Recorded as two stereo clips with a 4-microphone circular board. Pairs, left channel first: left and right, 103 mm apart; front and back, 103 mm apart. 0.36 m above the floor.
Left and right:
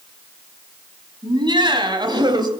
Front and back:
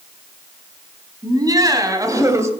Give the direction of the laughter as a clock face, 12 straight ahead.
4 o'clock.